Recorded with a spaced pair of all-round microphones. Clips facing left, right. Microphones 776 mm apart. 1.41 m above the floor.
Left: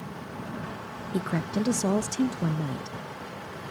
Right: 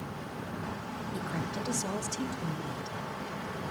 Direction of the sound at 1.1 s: 75° left (ahead or behind).